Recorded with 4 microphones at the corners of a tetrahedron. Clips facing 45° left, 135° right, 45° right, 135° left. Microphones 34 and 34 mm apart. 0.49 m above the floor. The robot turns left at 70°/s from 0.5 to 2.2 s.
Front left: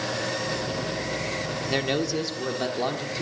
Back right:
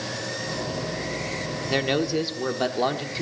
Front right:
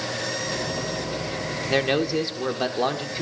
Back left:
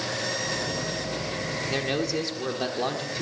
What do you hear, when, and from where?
1.7 s a man speaking: 55° right, 1.2 m; by 3.2 s 90° right, 1.2 m